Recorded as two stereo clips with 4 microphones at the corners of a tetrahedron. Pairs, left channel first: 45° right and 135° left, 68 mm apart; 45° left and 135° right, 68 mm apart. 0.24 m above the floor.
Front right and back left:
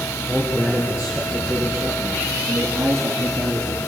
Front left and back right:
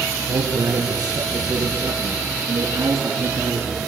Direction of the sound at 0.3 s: 145° right.